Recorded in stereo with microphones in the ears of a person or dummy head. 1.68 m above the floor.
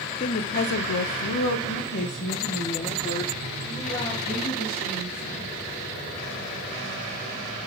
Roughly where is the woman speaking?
Left.